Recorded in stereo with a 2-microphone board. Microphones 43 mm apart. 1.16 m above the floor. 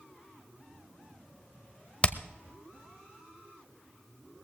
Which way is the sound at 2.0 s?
25° left (ahead or behind).